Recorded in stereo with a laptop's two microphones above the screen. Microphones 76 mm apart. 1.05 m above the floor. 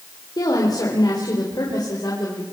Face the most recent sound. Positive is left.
turn(degrees=60)  # may be behind; listen again after turning